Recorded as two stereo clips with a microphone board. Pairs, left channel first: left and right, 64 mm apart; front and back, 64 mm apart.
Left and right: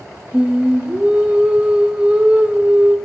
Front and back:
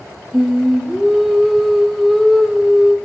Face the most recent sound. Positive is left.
turn(degrees=-90)